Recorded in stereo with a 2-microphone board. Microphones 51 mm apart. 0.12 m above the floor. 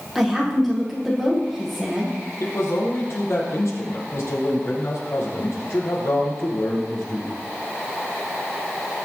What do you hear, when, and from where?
0.1 s a woman speaking: centre (ahead or behind), 5.5 m
2.4 s a man speaking: 70° left (ahead or behind), 5 m